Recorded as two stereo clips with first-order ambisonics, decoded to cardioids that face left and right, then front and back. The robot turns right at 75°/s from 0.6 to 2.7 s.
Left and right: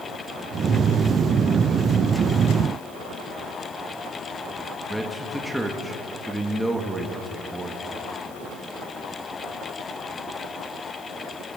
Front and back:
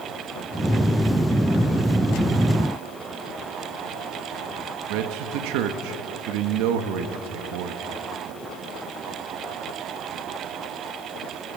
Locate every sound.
4.9 s a man speaking: straight behind, 1.9 m